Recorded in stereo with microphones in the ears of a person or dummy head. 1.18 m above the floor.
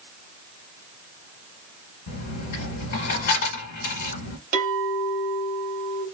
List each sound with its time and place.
2.1 s a dropped coin: 45° left (ahead or behind), 1.7 m
4.5 s a clink: 45° right (ahead or behind), 1.7 m